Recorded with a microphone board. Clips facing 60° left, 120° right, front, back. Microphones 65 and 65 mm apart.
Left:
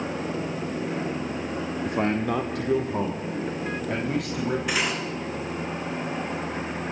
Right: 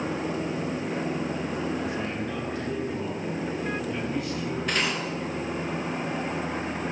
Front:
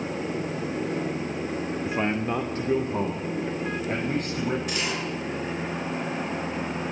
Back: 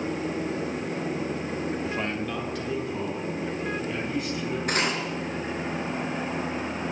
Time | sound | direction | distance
1.9 | a man speaking | 70° left | 1.7 m
4.7 | cutlery clinking | 140° left | 5 m